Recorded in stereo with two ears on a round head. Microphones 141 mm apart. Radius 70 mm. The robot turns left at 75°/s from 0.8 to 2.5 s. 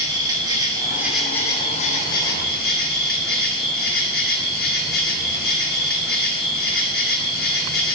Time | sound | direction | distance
0.0 | an insect | 150° right | 1.6 m